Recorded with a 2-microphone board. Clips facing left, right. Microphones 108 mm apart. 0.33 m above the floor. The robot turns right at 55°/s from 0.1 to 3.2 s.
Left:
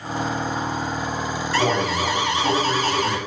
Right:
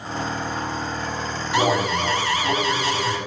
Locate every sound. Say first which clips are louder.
1.5 s an alarm: right 1 dB; 20° right, 6 m; by 3.2 s 70° left, 6 m